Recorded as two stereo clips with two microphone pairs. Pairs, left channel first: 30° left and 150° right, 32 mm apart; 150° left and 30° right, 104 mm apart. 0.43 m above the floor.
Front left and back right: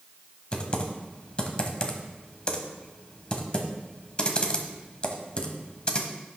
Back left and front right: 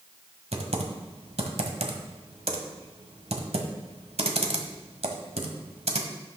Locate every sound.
0.5 s typing on a keyboard: 25° right, 1.0 m